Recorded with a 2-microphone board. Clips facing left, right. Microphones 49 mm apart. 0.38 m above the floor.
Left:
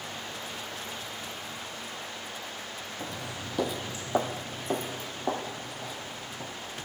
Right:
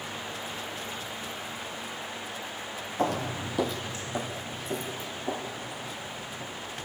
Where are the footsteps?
70° right (ahead or behind), 0.9 m; by 6.5 s 50° left (ahead or behind), 4.5 m.